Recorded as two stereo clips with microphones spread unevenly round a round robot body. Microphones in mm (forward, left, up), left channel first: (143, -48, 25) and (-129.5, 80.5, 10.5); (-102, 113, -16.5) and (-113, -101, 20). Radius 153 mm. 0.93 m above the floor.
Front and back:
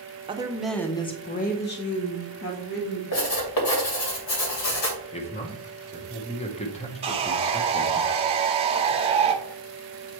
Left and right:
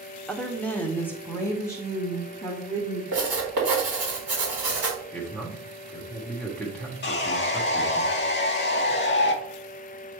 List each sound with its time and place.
0.3 s a woman speaking: 140° left, 0.8 m; by 3.0 s 10° left, 1.8 m
3.1 s writing: 40° right, 2.5 m
5.1 s a man speaking: 25° left, 1.0 m
7.0 s sawing: 90° left, 1.0 m